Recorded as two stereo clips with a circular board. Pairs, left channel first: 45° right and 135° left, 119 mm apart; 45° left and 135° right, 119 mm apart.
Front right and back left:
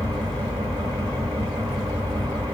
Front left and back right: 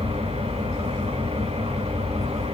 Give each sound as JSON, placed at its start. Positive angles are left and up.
{"t": 0.0, "sound": "an engine running", "azimuth_deg": -170, "distance_m": 7.5}